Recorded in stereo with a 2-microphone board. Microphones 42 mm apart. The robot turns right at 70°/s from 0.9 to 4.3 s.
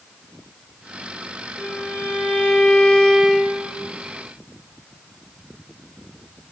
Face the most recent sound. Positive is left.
turn(degrees=-110)